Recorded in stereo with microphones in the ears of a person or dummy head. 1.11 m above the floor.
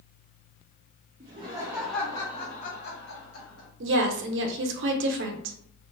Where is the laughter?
30° right (ahead or behind), 0.6 m; by 3.7 s 65° left (ahead or behind), 1.0 m.